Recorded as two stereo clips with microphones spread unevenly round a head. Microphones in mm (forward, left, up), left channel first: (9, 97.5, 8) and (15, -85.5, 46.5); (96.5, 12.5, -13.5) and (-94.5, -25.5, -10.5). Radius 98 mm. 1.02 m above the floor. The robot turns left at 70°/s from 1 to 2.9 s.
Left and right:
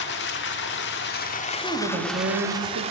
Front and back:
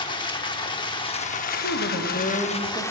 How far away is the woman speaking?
About 1.6 m.